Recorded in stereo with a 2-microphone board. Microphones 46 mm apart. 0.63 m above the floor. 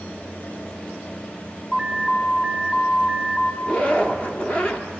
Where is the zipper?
25° left (ahead or behind), 1.4 m.